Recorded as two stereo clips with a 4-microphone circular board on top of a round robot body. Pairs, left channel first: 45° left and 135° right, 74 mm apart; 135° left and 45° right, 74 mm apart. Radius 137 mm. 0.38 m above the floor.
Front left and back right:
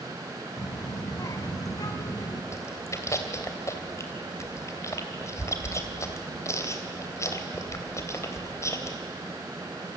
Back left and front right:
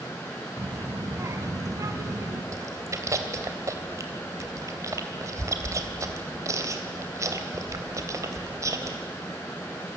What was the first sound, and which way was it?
A child speaking, 5° left.